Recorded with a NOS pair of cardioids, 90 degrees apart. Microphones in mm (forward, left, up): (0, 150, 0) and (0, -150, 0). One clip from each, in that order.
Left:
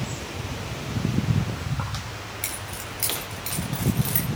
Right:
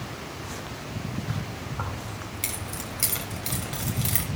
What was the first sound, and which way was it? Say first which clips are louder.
Keys jangling: left 1 dB; 5° right.